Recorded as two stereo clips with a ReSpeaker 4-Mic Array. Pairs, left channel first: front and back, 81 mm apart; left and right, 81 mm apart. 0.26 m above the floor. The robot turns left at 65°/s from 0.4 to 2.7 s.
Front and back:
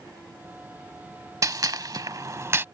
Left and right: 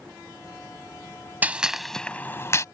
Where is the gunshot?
155° right; by 2.6 s 125° left.